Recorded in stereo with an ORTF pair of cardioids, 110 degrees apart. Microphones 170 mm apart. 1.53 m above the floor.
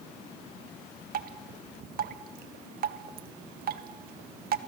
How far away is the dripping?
About 1.6 m.